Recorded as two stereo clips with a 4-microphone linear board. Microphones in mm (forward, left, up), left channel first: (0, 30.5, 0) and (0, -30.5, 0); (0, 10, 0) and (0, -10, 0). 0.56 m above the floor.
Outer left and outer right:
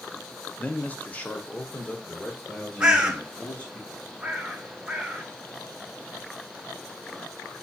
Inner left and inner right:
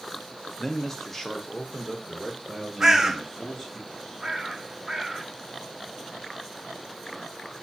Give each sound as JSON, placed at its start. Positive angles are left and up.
{"t": 0.6, "sound": "a man speaking", "side_deg": 25, "distance_m": 0.7}
{"t": 2.8, "sound": "a bird", "side_deg": -15, "distance_m": 1.0}